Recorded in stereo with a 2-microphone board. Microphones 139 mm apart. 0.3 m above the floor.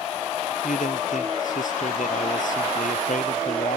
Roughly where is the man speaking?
Left.